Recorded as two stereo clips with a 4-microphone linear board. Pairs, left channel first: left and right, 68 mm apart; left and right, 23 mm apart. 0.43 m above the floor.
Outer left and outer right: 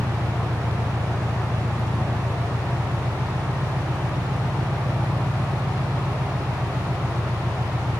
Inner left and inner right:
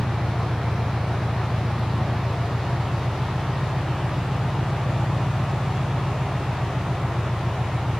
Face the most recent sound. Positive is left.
turn(degrees=-80)